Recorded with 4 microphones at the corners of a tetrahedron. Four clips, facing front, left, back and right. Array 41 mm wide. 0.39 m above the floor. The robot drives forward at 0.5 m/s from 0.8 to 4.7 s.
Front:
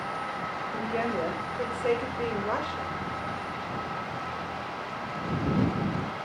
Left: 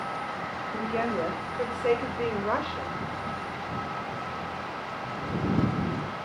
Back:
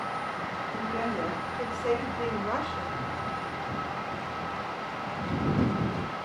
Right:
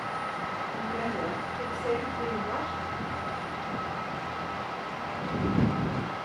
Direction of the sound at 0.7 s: 50° left.